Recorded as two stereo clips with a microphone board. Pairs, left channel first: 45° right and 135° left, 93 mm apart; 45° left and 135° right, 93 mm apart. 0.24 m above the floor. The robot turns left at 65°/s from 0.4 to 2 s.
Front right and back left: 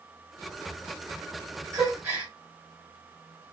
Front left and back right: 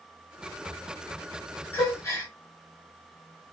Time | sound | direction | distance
1.7 | a gasp | 95° left | 1.8 m